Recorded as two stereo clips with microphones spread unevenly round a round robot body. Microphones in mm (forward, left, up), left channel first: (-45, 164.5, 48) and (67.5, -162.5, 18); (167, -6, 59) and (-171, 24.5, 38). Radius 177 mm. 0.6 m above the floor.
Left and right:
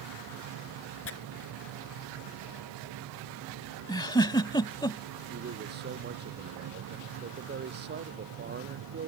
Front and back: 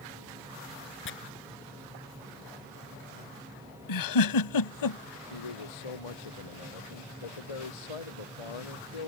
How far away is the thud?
I don't hear a thud.